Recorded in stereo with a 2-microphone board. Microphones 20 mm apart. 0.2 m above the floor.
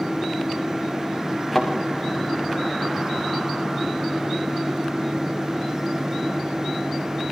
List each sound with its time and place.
1.5 s a thud: centre (ahead or behind), 6 m